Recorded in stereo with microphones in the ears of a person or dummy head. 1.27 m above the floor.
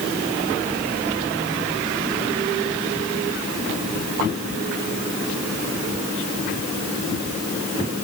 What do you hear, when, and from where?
Only background noise.